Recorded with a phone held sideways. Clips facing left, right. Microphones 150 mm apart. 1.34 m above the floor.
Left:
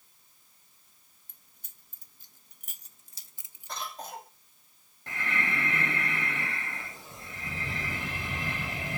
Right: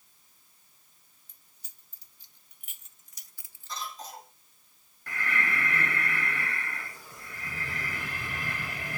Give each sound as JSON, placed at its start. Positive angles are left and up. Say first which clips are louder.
{"t": 1.3, "sound": "keys jangling", "louder": "left 2 dB", "side_deg": 60, "distance_m": 1.7}
{"t": 3.7, "sound": "a cough", "louder": "left 1 dB", "side_deg": 60, "distance_m": 5.0}
{"t": 5.1, "sound": "breathing", "louder": "right 1 dB", "side_deg": 25, "distance_m": 2.0}